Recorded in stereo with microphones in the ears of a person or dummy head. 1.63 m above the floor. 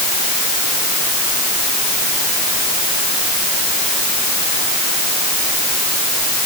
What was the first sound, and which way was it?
Only background noise.